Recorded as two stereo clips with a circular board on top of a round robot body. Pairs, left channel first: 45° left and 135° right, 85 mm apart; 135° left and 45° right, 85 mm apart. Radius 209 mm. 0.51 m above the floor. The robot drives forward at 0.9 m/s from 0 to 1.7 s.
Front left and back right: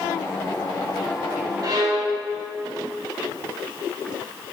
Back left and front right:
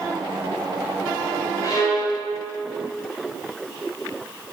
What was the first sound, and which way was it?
A violin, straight behind.